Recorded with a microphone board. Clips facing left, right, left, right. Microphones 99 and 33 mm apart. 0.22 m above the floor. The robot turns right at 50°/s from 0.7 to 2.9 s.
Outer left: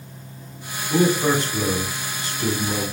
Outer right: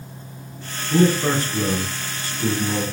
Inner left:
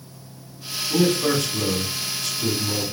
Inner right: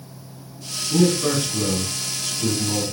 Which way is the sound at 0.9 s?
115° left.